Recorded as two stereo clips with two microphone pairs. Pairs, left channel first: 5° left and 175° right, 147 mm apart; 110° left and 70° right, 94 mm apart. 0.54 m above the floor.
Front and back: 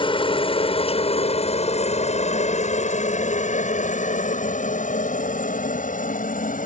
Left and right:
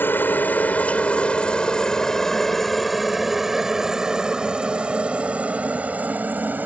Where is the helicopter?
50° left; by 6.7 s straight ahead.